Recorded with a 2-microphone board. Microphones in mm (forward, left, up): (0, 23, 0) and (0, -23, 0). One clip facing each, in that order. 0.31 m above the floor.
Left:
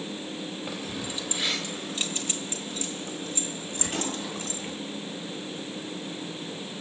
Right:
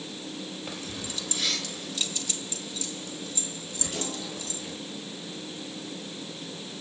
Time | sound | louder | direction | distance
0.7 | keys jangling | left 3 dB | 10° left (ahead or behind) | 0.9 m